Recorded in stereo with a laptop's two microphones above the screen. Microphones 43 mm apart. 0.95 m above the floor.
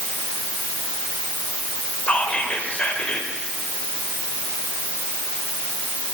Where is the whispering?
30° left (ahead or behind), 4.5 m.